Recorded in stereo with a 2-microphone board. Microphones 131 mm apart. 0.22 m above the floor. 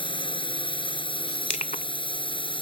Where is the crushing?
60° left (ahead or behind).